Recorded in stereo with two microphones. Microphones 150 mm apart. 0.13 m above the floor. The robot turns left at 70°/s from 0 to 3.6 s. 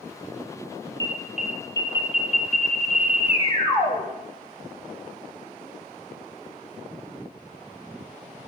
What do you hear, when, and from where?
1.0 s an alarm: 150° right, 3.5 m; by 4.0 s 30° left, 3.5 m